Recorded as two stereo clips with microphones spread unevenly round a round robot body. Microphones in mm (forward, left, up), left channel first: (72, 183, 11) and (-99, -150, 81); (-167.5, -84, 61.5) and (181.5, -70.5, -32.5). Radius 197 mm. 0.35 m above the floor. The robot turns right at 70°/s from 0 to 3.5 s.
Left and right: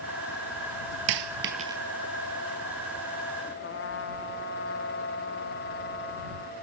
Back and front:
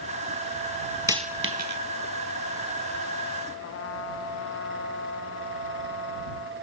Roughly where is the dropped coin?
Right.